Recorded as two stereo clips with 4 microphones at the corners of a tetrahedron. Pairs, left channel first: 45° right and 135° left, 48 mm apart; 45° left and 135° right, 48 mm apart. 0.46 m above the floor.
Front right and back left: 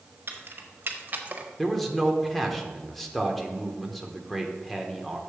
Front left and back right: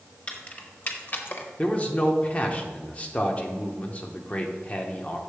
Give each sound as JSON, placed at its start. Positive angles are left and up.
{"t": 0.3, "sound": "keys jangling", "azimuth_deg": 105, "distance_m": 1.5}
{"t": 1.6, "sound": "a man speaking", "azimuth_deg": 40, "distance_m": 1.0}